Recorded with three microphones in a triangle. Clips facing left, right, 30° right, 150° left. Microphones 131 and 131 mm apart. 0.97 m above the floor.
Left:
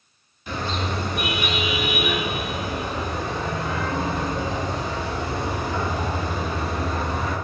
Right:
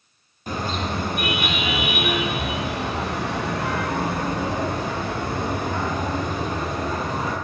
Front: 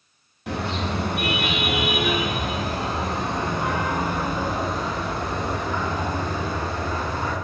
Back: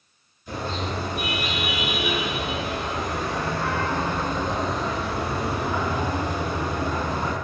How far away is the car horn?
About 4.5 m.